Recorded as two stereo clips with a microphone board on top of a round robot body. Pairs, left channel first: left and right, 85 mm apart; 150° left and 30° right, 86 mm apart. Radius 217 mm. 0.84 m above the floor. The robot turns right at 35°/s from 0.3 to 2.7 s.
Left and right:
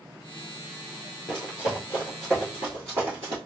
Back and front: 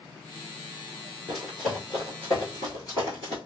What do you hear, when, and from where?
1.3 s running footsteps: 40° left, 0.8 m; by 3.4 s 145° right, 1.3 m